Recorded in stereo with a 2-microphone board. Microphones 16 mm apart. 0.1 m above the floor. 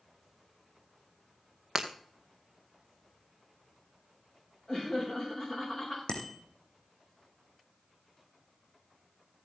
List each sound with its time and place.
1.8 s breaking glass: 25° right (ahead or behind), 1.8 m
4.7 s laughter: 30° left (ahead or behind), 7.5 m
6.1 s a bicycle bell: 55° left (ahead or behind), 3.5 m